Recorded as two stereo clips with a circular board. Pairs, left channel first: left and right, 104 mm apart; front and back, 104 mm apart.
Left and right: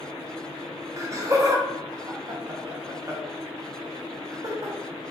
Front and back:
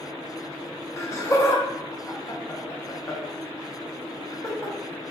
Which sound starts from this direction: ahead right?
Laughter, at 1.0 s.